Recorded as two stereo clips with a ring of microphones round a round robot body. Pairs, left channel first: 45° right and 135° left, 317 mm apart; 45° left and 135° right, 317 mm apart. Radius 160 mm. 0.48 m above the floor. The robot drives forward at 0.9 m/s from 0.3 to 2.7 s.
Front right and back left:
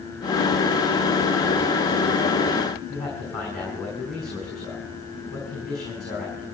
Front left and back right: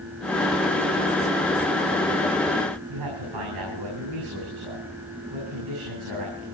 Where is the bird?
No bird in this recording.